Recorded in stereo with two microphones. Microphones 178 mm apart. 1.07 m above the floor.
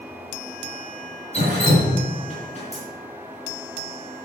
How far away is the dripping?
About 4 m.